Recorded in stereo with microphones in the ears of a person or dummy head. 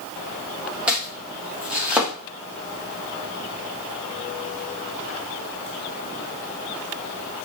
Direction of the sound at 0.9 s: 5° right (ahead or behind).